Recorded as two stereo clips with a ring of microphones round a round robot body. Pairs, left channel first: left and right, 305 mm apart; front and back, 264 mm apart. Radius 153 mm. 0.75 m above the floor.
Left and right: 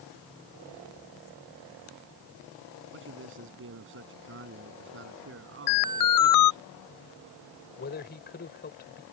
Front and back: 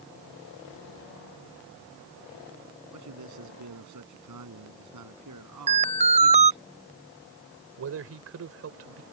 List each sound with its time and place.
2.9 s a man speaking: 145° right
5.7 s an alarm: 115° left
7.8 s a man speaking: 150° left